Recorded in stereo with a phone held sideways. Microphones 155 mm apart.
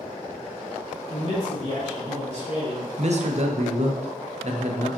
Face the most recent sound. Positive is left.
turn(degrees=-50)  # may be behind; listen again after turning